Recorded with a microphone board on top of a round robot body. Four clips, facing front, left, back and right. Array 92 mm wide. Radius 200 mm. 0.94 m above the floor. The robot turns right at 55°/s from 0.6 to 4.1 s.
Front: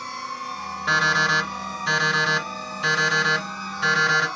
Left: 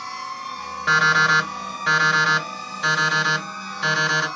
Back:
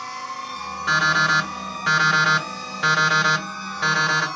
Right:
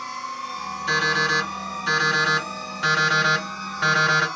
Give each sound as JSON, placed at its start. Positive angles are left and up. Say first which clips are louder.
{"t": 0.9, "sound": "an alarm clock", "louder": "left 6 dB, back 2 dB", "azimuth_deg": 95, "distance_m": 2.5}